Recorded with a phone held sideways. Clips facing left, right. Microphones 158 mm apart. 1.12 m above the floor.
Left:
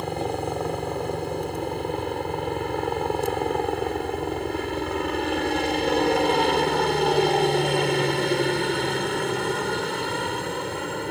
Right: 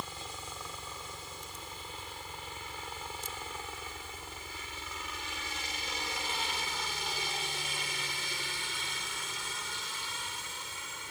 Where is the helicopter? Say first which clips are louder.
Left 18 dB; 70° left (ahead or behind).